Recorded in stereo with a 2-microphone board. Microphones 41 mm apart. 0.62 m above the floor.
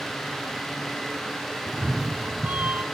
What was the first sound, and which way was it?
A cat meowing, 45° right (ahead or behind).